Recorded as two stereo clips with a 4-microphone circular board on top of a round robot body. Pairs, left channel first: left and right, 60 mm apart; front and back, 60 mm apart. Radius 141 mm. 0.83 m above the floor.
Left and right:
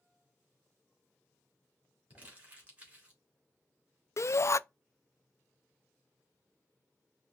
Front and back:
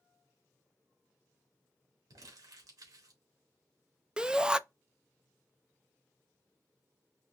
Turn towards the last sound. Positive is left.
turn(degrees=105)